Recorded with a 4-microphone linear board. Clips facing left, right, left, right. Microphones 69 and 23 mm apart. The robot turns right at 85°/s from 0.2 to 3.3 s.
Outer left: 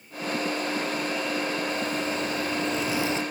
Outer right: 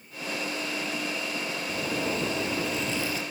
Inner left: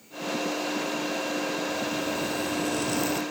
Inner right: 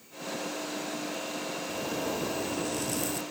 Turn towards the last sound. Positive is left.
turn(degrees=45)